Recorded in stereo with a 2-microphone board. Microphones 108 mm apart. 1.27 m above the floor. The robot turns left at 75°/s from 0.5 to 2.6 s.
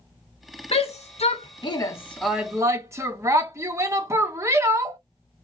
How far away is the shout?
About 1.1 m.